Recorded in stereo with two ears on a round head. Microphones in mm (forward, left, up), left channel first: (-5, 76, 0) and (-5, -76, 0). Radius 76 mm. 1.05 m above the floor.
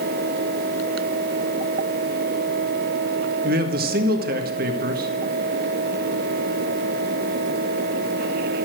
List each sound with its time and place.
3.4 s a man speaking: 55° right (ahead or behind), 1.7 m